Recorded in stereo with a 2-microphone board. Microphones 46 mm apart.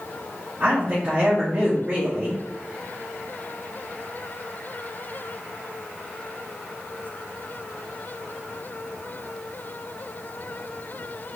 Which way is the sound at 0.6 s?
35° right (ahead or behind).